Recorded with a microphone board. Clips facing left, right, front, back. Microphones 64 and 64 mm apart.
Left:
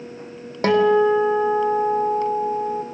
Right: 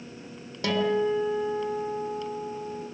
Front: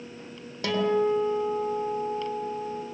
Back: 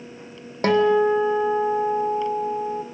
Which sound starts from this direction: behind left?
A guitar, at 0.6 s.